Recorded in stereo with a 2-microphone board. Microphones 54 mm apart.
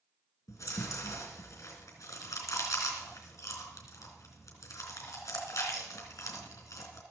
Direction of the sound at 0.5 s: 70° left (ahead or behind).